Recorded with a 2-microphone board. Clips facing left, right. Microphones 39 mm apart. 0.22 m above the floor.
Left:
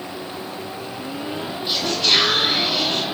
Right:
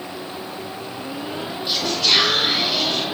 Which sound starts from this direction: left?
Whispering, at 1.7 s.